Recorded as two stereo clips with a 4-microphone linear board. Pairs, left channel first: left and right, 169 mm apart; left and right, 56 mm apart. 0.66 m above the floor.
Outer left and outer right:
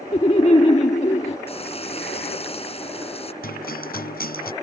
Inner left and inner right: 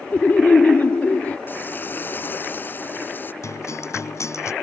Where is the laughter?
35° left (ahead or behind).